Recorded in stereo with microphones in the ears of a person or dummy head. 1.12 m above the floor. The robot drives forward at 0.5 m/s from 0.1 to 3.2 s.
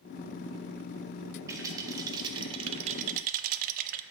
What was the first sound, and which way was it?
A rattle, 20° right (ahead or behind).